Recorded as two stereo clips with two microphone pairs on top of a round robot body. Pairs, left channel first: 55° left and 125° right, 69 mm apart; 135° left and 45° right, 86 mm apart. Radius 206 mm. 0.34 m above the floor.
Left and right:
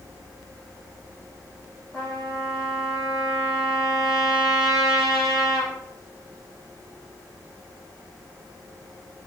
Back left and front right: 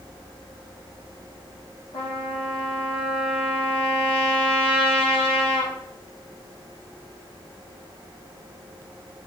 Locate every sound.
1.9 s a trumpet: 155° left, 8.5 m